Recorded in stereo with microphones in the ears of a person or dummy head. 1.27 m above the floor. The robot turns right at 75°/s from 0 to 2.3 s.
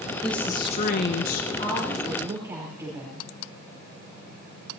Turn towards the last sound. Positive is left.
turn(degrees=-160)